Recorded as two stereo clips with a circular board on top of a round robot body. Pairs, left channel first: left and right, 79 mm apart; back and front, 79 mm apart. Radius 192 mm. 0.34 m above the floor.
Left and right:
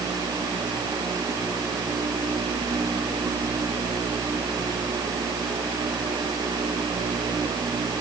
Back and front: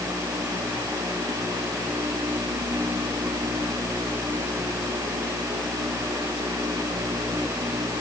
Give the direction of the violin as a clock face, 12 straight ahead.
No violin in this recording.